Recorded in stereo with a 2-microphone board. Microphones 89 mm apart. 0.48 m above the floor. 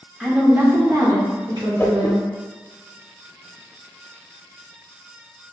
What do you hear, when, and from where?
0.2 s a woman speaking: 10° right (ahead or behind), 1.1 m; by 2.2 s 55° right (ahead or behind), 2.0 m
1.8 s a whoosh: 25° left (ahead or behind), 0.8 m